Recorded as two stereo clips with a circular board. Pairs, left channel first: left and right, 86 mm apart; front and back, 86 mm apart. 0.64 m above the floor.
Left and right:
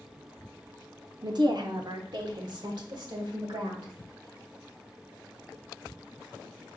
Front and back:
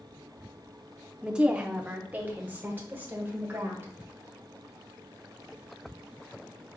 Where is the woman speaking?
100° right, 0.9 m; by 3.9 s 115° right, 2.5 m.